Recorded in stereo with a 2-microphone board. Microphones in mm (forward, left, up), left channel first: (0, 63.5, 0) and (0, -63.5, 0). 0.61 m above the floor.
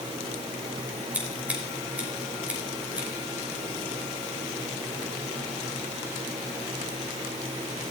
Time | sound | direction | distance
1.1 | scissors | 10° right (ahead or behind) | 3 m